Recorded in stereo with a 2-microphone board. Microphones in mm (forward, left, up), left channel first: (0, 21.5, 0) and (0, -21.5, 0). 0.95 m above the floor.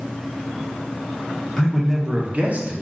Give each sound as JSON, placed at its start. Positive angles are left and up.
{"t": 1.6, "sound": "a man speaking", "side_deg": 10, "distance_m": 0.7}